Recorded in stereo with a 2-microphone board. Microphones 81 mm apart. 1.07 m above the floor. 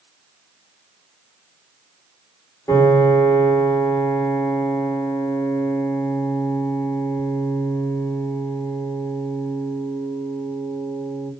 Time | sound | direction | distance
2.7 | a piano | 45° left (ahead or behind) | 1.3 m